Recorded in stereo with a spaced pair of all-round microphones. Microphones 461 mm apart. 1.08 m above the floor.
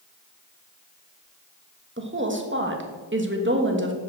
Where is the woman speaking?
25° right (ahead or behind), 1.3 m.